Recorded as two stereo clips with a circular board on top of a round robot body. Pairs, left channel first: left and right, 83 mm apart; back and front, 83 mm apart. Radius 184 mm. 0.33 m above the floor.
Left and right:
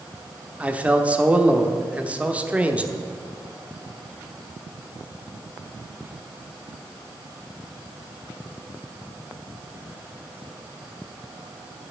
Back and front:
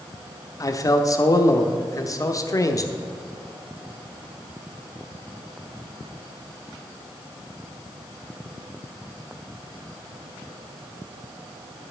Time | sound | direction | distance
0.6 | a man speaking | 160° right | 1.2 m